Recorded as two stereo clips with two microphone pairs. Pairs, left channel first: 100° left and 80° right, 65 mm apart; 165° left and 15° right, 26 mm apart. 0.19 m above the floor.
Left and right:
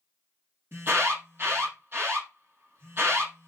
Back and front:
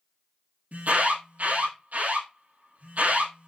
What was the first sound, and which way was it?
An alarm, 25° right.